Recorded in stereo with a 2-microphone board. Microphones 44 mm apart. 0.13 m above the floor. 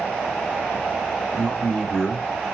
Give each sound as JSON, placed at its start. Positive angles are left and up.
{"t": 1.3, "sound": "a man speaking", "side_deg": 15, "distance_m": 1.0}